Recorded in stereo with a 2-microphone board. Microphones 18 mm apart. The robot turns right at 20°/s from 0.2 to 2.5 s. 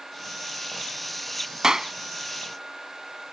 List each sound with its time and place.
1.6 s a clap: 40° right (ahead or behind)